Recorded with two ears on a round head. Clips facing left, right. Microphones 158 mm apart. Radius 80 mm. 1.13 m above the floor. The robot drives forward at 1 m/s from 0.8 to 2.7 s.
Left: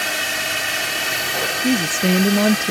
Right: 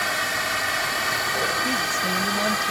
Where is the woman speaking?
60° left (ahead or behind).